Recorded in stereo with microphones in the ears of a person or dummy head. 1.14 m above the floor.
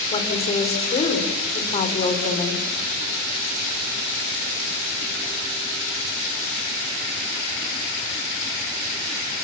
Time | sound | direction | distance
0.1 | a woman speaking | 35° left (ahead or behind) | 4.5 m